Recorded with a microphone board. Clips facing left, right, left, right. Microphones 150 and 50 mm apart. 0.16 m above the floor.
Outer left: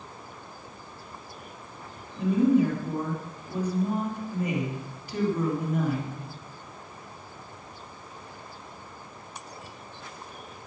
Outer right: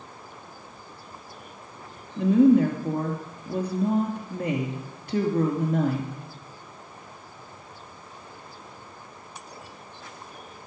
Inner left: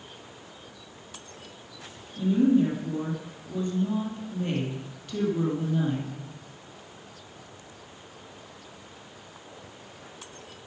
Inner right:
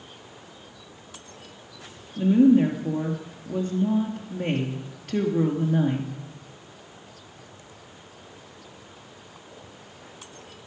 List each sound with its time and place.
2.2 s a woman speaking: 65° right (ahead or behind), 2.5 m